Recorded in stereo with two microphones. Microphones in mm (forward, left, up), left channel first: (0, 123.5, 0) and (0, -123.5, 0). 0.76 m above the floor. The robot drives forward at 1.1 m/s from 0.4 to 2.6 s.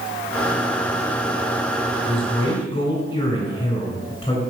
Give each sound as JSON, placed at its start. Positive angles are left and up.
{"t": 2.1, "sound": "a man speaking", "side_deg": 20, "distance_m": 2.5}